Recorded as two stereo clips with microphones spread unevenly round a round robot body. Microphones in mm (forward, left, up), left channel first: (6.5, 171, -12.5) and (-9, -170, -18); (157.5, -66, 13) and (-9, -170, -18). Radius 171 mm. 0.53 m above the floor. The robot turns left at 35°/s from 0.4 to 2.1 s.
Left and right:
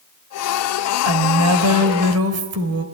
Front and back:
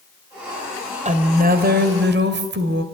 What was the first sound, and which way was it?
A woman speaking, 100° right.